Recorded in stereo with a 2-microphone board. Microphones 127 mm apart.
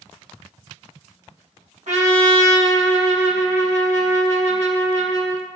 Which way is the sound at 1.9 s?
65° right (ahead or behind).